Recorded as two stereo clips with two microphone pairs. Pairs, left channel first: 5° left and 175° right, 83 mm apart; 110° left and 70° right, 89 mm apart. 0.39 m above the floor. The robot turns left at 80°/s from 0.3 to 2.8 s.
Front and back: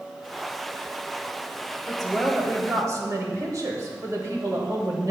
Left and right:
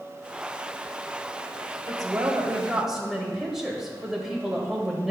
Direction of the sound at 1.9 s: 75° right.